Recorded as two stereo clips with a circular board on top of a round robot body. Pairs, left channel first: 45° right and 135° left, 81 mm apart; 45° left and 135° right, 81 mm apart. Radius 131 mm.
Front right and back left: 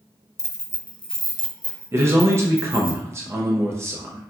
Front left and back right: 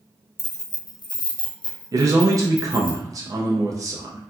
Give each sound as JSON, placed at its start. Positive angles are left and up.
{"t": 0.4, "sound": "keys jangling", "azimuth_deg": -10, "distance_m": 0.6}
{"t": 1.9, "sound": "a man speaking", "azimuth_deg": -175, "distance_m": 0.5}